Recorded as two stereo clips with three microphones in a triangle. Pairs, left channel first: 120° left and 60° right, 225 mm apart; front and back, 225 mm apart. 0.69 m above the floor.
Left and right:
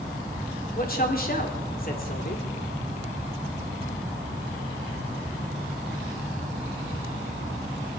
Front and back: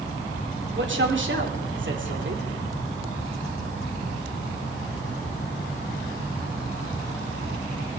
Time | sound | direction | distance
0.8 | a man speaking | 160° left | 2 m